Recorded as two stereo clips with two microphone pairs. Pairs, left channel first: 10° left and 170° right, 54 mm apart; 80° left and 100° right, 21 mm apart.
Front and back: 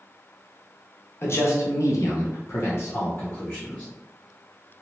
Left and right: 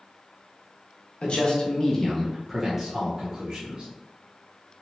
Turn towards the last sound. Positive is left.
turn(degrees=-55)